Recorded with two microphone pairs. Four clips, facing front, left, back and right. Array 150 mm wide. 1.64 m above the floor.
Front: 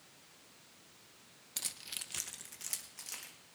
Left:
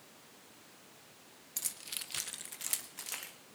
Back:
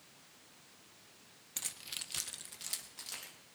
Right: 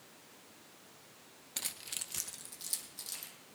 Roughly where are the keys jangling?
Right.